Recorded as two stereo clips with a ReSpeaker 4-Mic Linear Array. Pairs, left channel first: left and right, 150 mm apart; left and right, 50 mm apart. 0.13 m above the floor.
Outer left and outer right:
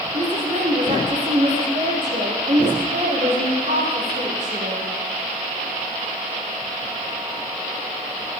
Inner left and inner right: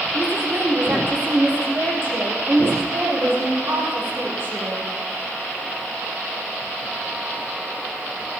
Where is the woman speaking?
50° right (ahead or behind), 4 m.